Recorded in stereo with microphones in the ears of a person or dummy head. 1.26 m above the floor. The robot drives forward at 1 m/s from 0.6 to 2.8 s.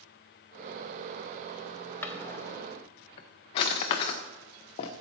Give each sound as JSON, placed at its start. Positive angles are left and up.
{"t": 2.0, "sound": "a drawer", "side_deg": 10, "distance_m": 1.0}